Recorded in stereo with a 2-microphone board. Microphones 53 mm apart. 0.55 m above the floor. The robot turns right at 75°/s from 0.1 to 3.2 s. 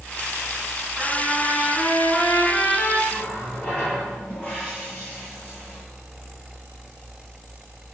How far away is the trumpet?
About 4.5 m.